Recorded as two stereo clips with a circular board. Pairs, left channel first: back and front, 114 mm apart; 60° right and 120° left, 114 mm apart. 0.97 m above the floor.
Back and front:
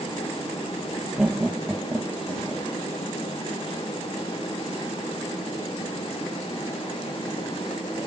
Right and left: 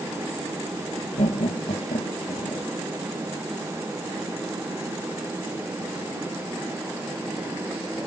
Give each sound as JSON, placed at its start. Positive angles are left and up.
{"t": 1.2, "sound": "laughter", "azimuth_deg": -80}